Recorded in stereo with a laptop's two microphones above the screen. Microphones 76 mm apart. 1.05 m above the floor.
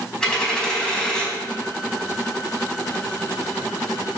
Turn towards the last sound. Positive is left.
turn(degrees=10)  # may be behind; listen again after turning